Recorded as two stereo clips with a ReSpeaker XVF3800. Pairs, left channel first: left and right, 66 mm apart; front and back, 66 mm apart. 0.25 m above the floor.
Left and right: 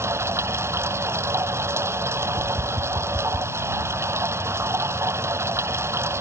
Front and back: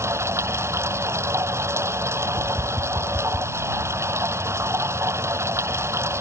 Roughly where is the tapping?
Behind right.